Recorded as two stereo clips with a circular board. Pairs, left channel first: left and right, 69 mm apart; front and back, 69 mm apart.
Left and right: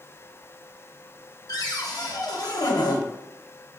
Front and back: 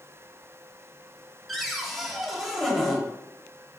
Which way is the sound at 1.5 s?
90° left.